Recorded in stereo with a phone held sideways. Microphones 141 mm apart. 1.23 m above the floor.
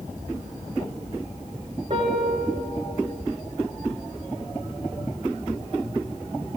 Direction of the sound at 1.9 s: 55° right (ahead or behind).